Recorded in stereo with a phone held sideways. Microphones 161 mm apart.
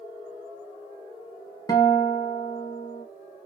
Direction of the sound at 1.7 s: 25° left (ahead or behind).